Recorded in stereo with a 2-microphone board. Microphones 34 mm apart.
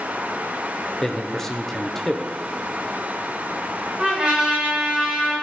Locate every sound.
1.0 s a man speaking: 10° left (ahead or behind), 0.8 m
4.0 s a trumpet: 25° right (ahead or behind), 2.5 m